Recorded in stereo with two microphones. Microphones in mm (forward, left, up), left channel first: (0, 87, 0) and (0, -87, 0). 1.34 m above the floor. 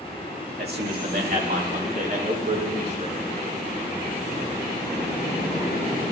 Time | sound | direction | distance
0.6 | a man speaking | 70° right (ahead or behind) | 2.0 m